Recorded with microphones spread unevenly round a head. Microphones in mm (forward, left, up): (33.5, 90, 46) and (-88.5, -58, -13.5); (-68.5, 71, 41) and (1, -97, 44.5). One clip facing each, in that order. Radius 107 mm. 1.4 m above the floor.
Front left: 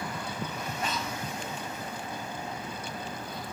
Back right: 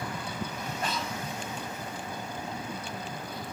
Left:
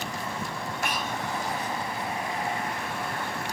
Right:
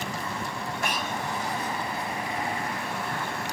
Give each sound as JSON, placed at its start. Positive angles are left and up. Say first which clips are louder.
{"t": 0.8, "sound": "breathing", "louder": "even, right 1 dB", "azimuth_deg": -60, "distance_m": 1.3}